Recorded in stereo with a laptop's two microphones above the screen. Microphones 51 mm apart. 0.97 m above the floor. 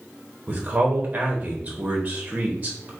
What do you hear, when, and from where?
0.5 s a man speaking: 30° right (ahead or behind), 0.9 m